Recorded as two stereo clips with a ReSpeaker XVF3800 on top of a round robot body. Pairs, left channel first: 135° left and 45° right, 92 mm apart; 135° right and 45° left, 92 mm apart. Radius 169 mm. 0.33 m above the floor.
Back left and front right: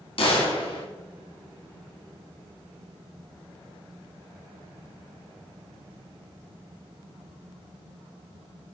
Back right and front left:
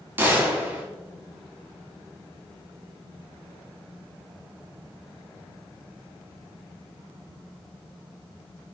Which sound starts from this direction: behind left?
A gunshot, at 0.2 s.